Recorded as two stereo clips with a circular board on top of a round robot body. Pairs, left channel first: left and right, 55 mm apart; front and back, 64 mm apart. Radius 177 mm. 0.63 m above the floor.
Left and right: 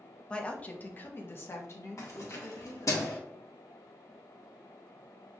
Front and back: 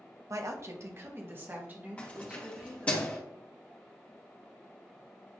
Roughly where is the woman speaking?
Behind.